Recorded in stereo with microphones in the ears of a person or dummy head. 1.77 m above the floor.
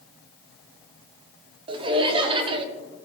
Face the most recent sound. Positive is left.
turn(degrees=-30)  # may be behind; listen again after turning